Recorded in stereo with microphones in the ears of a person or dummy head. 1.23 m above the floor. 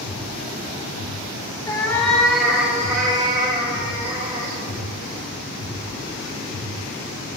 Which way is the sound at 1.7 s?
15° left (ahead or behind).